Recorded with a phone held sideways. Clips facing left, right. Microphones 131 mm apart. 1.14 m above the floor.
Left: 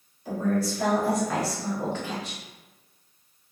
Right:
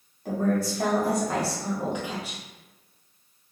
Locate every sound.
0.2 s a woman speaking: 60° right (ahead or behind), 1.2 m; by 2.4 s 5° right (ahead or behind), 1.1 m